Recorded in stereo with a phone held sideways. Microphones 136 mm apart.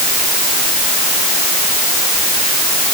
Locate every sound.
Only background noise.